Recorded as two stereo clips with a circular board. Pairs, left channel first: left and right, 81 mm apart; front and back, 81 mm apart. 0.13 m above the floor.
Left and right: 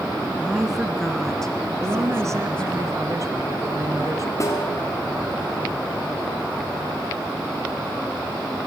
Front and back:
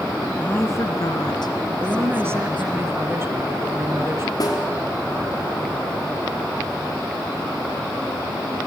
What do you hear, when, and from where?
0.4 s a woman speaking: 35° right, 1.1 m; by 2.8 s 10° left, 4 m
1.8 s a woman speaking: 130° right, 2.5 m
4.4 s a snare drum: 40° left, 4 m